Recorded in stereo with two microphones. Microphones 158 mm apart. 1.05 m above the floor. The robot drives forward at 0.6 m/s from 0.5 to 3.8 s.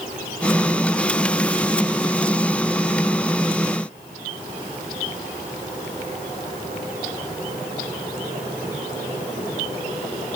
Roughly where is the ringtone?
I don't hear a ringtone.